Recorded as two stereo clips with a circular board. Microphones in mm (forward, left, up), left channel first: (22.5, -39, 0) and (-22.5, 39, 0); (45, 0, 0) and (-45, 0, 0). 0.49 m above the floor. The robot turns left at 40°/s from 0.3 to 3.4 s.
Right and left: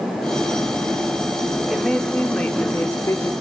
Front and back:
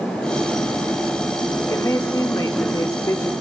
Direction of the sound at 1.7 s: 30° left.